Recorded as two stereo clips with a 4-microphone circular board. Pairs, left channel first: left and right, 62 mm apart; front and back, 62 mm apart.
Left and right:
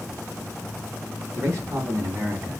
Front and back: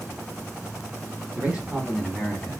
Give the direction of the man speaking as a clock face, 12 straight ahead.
4 o'clock.